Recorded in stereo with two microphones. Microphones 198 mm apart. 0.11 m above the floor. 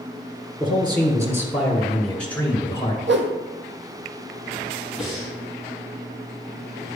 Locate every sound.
0.6 s a man speaking: 25° right (ahead or behind), 1.8 m; by 3.0 s 20° left (ahead or behind), 1.7 m
3.1 s a whoosh: 65° right (ahead or behind), 1.1 m
5.0 s breathing: centre (ahead or behind), 3.5 m